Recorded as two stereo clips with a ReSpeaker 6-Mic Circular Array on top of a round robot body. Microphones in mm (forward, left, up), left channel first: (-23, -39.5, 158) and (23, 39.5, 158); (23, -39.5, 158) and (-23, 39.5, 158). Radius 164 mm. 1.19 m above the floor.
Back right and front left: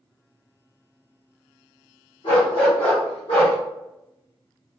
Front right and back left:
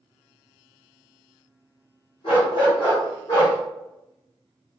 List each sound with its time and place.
2.2 s a dog barking: 85° right, 1.3 m; by 3.6 s 115° right, 0.8 m